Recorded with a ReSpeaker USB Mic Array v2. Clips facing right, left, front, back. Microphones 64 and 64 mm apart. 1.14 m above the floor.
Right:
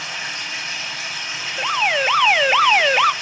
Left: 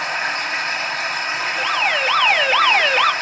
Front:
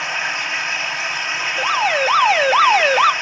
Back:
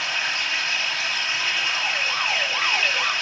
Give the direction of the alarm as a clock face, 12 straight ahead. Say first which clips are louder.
Right 2 dB, front 8 dB; 12 o'clock.